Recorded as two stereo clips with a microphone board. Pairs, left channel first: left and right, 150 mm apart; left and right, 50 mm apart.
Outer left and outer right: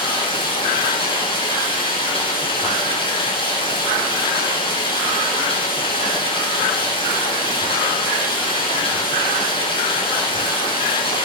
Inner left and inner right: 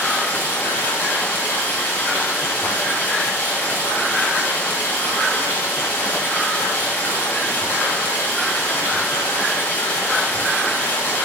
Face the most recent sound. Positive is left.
turn(degrees=40)  # may be behind; listen again after turning